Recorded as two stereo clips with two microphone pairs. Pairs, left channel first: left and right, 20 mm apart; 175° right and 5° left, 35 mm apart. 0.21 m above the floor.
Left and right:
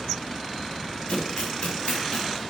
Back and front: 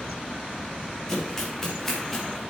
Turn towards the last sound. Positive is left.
turn(degrees=100)